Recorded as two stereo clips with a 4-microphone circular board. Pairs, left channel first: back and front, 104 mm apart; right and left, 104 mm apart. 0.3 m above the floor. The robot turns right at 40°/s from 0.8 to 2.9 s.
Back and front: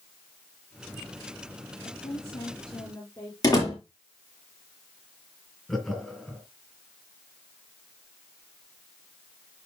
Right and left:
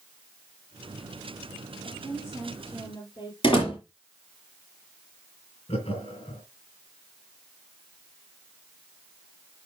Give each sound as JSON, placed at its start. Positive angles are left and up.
{"t": 1.8, "sound": "a woman speaking", "azimuth_deg": -160, "distance_m": 6.0}
{"t": 3.4, "sound": "a door slam", "azimuth_deg": -125, "distance_m": 6.0}
{"t": 5.7, "sound": "laughter", "azimuth_deg": -90, "distance_m": 2.5}